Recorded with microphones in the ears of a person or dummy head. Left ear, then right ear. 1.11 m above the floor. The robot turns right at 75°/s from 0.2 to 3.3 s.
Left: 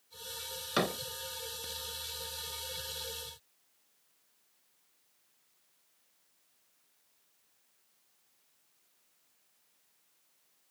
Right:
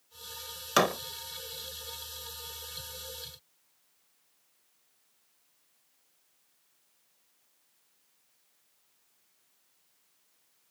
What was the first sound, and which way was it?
A door slam, 40° right (ahead or behind).